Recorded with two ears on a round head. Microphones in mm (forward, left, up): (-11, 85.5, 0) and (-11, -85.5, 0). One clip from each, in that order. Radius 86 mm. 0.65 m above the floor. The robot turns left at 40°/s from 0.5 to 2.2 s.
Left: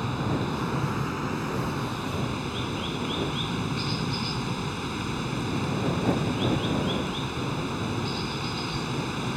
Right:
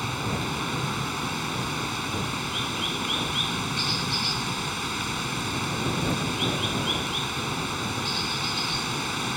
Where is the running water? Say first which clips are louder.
Right 1 dB; 55° right; by 9.4 s 120° right.